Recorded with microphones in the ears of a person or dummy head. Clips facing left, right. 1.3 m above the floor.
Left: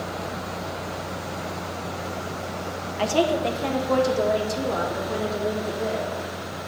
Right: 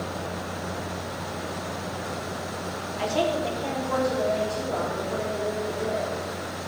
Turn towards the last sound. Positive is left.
turn(degrees=85)